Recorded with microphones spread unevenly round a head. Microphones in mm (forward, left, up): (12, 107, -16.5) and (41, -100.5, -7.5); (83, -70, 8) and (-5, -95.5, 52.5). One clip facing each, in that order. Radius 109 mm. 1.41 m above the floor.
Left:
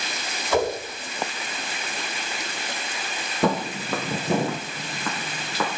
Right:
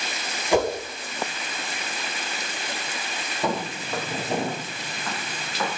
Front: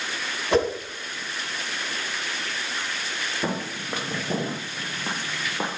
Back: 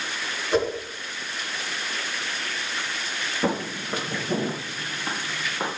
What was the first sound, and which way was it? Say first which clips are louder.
A whoosh: right 1 dB, front 2 dB; 5° right.